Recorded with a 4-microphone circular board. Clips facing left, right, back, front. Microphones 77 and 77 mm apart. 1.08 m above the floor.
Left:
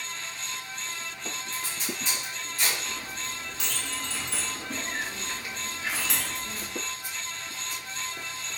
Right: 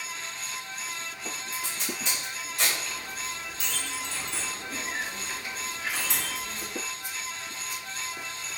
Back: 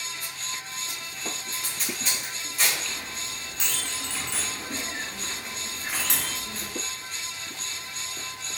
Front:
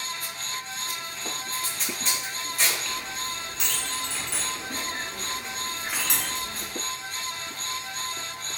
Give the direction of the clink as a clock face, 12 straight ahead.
9 o'clock.